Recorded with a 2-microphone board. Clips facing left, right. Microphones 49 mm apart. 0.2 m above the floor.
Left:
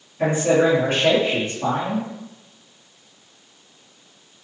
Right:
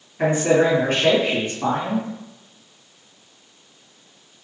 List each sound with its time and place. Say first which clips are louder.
0.2 s a man speaking: even; 55° right (ahead or behind), 2.0 m